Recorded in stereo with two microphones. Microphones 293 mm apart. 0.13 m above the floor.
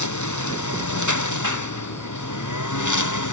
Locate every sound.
0.0 s a lawn mower: 75° left (ahead or behind); by 3.3 s 90° left